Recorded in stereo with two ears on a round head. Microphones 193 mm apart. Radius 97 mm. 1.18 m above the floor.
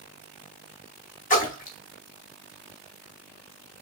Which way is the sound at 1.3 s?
35° left (ahead or behind).